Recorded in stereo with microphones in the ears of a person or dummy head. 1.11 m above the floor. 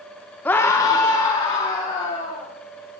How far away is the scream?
About 0.5 m.